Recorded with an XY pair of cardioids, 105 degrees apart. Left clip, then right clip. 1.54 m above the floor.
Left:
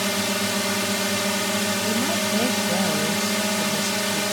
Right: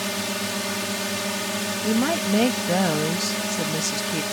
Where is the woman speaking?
40° right.